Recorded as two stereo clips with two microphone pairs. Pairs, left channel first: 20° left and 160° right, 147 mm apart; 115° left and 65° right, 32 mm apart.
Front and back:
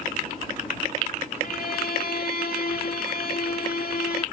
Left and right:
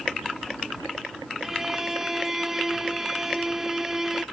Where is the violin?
10° left.